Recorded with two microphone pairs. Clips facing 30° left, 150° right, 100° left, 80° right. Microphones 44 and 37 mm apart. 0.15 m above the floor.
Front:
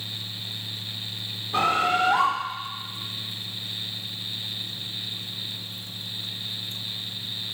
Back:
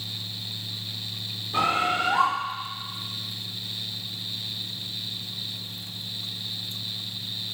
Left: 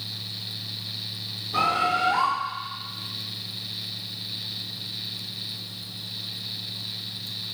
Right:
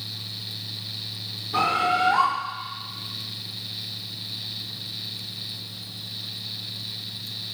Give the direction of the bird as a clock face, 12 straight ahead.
12 o'clock.